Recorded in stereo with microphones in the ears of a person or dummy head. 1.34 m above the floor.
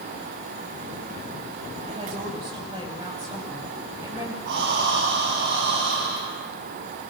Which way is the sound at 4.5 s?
65° right (ahead or behind).